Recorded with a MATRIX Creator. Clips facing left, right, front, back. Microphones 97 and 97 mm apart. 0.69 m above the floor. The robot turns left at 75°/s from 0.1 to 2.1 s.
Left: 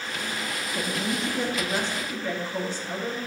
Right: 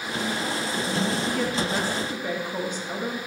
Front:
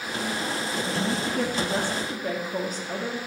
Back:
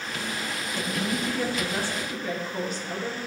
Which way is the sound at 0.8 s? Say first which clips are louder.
Right 1 dB, even; 80° left.